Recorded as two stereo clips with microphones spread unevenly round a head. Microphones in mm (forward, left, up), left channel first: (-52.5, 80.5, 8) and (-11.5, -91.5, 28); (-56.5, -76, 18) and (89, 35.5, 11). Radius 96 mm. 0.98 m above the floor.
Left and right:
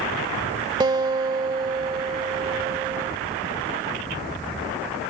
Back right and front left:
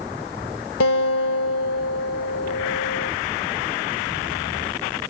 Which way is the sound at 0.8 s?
140° right.